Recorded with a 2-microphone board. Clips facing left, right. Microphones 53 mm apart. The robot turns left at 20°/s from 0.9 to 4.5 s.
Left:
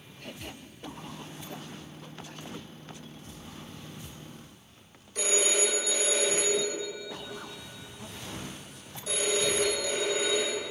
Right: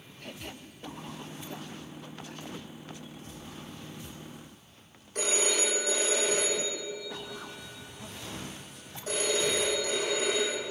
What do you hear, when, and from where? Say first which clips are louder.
5.2 s a phone ringing: left 1 dB; 45° right (ahead or behind), 4.5 m